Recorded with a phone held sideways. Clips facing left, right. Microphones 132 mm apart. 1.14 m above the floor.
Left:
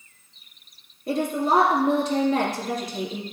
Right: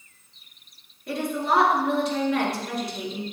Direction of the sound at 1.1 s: 40° left (ahead or behind).